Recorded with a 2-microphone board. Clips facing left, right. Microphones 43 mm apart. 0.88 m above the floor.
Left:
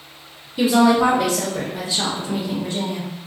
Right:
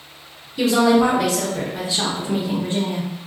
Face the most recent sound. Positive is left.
turn(degrees=-35)  # may be behind; listen again after turning